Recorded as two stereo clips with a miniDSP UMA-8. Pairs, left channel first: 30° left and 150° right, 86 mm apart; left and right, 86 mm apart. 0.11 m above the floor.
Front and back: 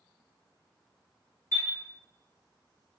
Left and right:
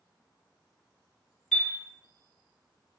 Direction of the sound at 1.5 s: 165° left.